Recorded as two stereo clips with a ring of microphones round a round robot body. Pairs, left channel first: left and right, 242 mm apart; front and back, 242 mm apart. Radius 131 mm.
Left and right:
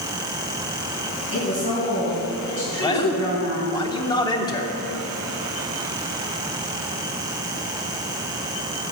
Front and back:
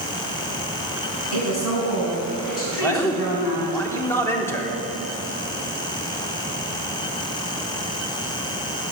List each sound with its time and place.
1.3 s a woman speaking: 25° right, 3.5 m
2.8 s a man speaking: 55° left, 0.8 m